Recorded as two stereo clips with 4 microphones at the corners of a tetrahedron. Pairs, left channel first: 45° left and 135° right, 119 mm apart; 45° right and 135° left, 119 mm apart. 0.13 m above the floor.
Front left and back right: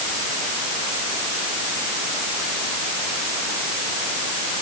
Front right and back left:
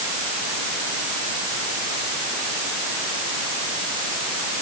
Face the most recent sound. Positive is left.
No sound to turn to.